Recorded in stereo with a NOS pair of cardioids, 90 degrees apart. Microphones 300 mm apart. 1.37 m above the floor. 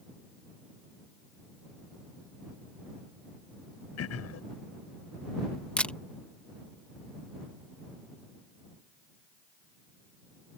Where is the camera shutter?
5° left.